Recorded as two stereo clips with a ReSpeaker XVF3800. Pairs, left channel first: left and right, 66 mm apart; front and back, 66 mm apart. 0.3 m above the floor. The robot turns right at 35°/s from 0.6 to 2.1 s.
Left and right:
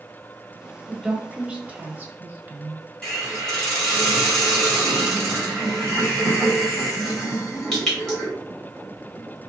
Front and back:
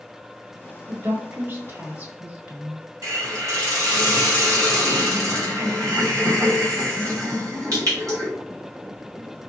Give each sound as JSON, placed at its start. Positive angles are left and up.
{"t": 0.9, "sound": "a woman speaking", "azimuth_deg": -175, "distance_m": 1.2}
{"t": 3.0, "sound": "a hiss", "azimuth_deg": 165, "distance_m": 2.5}